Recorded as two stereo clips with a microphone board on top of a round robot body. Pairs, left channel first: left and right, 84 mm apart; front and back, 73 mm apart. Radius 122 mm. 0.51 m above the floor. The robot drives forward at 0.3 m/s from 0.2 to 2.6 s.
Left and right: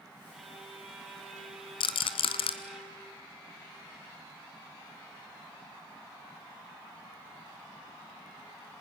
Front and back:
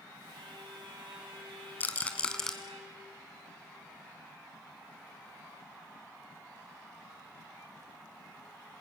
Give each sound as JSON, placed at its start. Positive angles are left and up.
{"t": 0.3, "sound": "a violin", "azimuth_deg": -175, "distance_m": 3.5}
{"t": 1.8, "sound": "a rattle", "azimuth_deg": 70, "distance_m": 0.8}